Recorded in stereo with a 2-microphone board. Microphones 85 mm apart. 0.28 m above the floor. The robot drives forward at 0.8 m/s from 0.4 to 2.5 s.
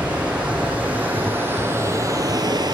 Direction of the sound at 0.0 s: 15° right (ahead or behind).